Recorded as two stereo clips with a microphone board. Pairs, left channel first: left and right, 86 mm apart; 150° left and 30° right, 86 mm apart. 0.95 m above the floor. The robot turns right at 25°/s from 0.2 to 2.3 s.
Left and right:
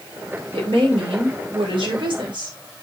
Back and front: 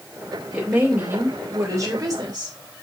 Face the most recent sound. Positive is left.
turn(degrees=-70)